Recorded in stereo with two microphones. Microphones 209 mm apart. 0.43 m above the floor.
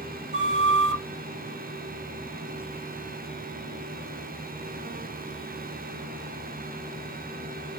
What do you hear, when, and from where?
0.3 s a flute: 55° right (ahead or behind), 1.8 m